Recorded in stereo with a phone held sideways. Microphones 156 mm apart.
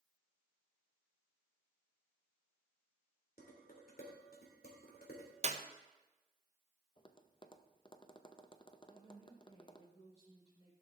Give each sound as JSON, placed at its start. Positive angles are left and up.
{"t": 3.4, "sound": "dishes clattering", "side_deg": 75, "distance_m": 2.5}
{"t": 5.4, "sound": "a clap", "side_deg": -45, "distance_m": 0.6}
{"t": 7.0, "sound": "tapping", "side_deg": 30, "distance_m": 0.6}
{"t": 8.9, "sound": "a woman speaking", "side_deg": 40, "distance_m": 4.5}